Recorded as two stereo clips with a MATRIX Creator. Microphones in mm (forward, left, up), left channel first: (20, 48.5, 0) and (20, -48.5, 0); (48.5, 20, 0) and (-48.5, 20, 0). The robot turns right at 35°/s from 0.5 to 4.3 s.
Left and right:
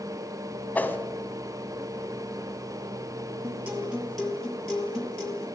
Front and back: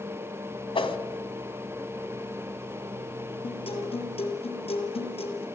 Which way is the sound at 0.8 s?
15° left.